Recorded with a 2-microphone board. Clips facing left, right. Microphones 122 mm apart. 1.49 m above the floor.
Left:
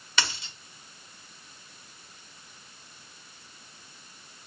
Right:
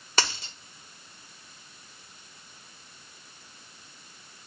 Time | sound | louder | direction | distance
0.2 | a dropped coin | right 2 dB | 40° right (ahead or behind) | 1.4 m